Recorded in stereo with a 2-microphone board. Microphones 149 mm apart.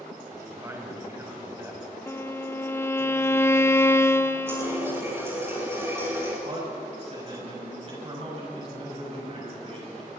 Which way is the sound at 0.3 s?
15° right (ahead or behind).